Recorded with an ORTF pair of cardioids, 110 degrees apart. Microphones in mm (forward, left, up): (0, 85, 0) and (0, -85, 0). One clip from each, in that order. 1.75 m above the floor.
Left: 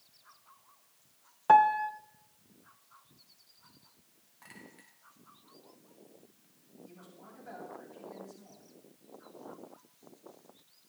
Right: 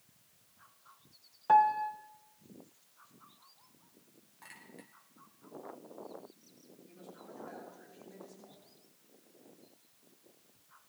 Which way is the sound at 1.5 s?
30° left.